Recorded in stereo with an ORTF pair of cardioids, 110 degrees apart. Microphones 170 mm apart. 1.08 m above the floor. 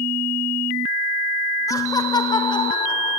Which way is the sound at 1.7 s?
20° left.